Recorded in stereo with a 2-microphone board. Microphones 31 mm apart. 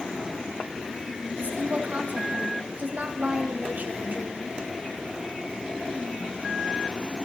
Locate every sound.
1.4 s a woman speaking: 80° right, 4 m; by 4.6 s 55° right (ahead or behind), 3 m